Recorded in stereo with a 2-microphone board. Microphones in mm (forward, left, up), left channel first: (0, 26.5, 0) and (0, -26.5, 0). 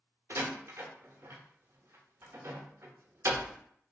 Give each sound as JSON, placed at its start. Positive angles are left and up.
{"t": 0.3, "sound": "a door slam", "side_deg": -55, "distance_m": 0.6}